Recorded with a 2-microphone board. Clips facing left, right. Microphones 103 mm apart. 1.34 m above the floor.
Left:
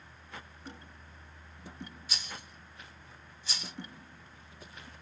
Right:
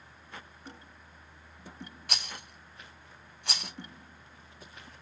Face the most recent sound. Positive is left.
turn(degrees=-65)  # may be behind; listen again after turning